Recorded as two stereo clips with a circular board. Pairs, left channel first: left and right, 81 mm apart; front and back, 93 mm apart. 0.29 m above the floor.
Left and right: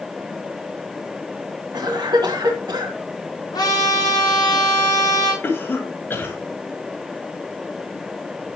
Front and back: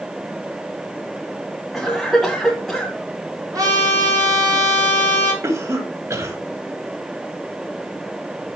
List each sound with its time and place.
1.7 s a cough: 90° right, 2 m
3.5 s a trumpet: 130° left, 7 m
5.4 s a cough: 140° left, 1.7 m